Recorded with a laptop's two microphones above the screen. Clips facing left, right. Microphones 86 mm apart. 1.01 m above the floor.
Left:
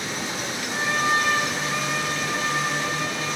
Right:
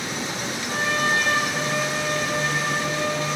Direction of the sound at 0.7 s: 85° right.